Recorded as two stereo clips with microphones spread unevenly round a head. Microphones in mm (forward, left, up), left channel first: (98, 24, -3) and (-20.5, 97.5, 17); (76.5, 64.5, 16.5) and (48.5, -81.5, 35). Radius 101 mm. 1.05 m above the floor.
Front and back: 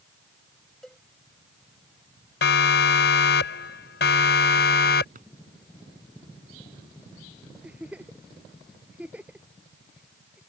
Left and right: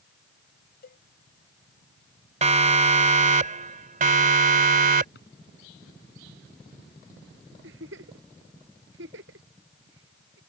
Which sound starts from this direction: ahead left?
A cowbell, at 0.8 s.